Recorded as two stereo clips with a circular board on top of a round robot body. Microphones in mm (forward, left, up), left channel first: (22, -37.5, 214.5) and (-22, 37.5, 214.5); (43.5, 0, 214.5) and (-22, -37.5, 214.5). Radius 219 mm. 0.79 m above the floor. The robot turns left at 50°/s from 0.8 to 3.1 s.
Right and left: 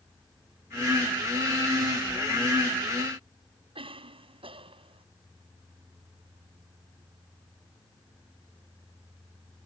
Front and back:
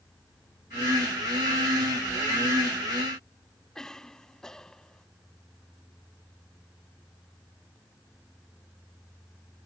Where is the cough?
115° left.